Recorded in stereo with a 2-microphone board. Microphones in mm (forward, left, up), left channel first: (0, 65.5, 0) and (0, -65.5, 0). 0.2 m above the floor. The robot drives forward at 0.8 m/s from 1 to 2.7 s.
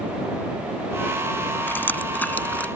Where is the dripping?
15° left (ahead or behind); by 2.7 s 10° left (ahead or behind).